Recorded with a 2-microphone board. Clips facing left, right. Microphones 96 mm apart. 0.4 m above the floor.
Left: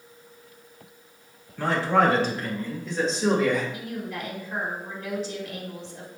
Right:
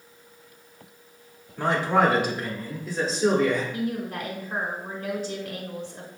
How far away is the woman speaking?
About 1.5 m.